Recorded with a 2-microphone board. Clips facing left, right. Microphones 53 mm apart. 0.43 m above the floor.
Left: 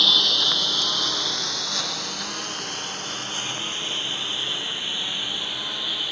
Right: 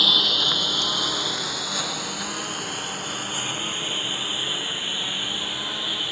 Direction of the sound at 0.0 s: 5° right (ahead or behind).